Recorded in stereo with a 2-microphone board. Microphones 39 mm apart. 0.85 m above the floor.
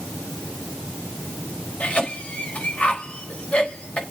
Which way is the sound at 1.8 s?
30° left (ahead or behind).